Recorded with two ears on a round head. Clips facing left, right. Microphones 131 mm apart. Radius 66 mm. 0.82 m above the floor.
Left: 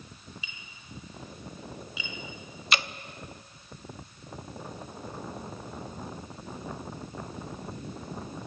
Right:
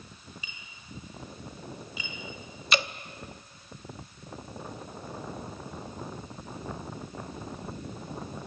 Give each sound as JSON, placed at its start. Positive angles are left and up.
{"t": 0.4, "sound": "tapping", "side_deg": -40, "distance_m": 4.5}
{"t": 2.7, "sound": "dripping", "side_deg": -80, "distance_m": 0.7}